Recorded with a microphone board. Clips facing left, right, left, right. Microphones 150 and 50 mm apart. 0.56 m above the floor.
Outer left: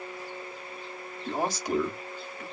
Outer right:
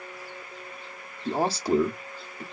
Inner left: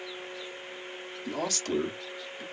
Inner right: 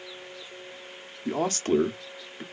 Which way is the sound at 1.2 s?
35° right (ahead or behind).